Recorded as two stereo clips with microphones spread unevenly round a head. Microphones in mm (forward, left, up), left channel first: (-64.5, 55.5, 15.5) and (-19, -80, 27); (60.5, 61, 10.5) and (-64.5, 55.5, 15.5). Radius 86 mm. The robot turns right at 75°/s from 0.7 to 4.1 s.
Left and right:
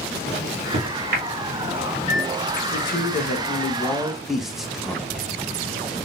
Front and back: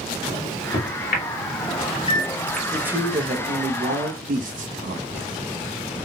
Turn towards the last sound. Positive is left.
turn(degrees=-160)